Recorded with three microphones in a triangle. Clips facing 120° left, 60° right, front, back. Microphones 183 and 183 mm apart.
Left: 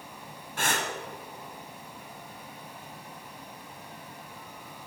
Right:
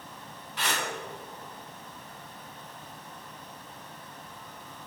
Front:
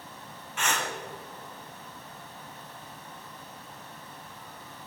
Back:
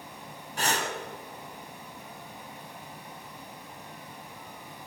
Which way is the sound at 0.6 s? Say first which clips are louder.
Left 2 dB, back 2 dB; 140° left.